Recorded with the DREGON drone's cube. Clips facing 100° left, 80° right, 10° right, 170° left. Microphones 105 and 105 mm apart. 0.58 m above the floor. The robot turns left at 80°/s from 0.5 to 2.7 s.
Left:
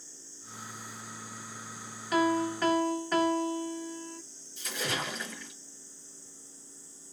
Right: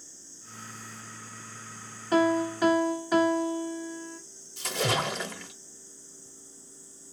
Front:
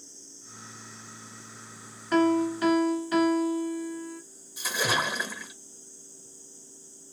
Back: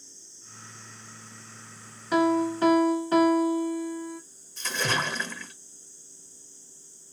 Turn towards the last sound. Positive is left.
turn(degrees=-90)